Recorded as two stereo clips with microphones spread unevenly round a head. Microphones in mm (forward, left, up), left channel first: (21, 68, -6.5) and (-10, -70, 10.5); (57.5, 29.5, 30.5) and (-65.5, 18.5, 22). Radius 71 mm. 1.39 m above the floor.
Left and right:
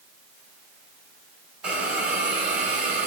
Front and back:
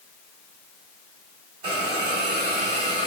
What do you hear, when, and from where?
1.6 s a hiss: 170° right, 1.4 m